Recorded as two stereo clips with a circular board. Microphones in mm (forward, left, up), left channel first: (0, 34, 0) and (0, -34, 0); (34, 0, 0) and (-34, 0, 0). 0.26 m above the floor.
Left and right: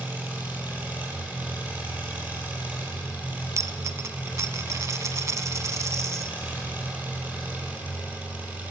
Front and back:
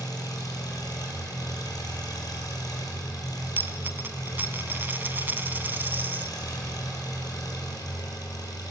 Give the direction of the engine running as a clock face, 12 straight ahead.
1 o'clock.